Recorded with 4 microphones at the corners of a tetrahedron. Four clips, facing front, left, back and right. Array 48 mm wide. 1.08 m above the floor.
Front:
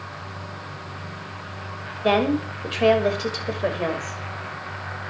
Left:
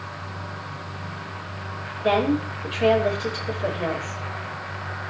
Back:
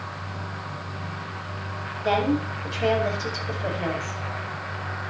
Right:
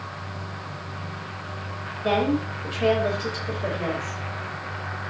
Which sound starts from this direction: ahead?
A woman speaking, at 2.0 s.